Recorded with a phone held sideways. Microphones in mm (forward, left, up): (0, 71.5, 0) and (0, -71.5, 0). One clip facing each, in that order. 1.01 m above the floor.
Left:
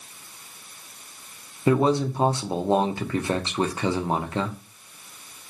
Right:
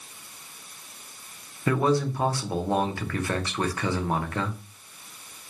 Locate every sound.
1.7 s a man speaking: 20° left (ahead or behind), 0.6 m